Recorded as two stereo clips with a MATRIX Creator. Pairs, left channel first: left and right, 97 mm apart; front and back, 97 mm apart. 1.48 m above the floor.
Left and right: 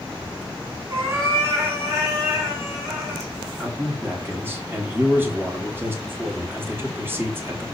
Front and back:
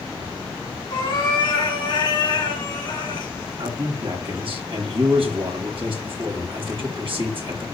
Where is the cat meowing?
30° right, 3 m.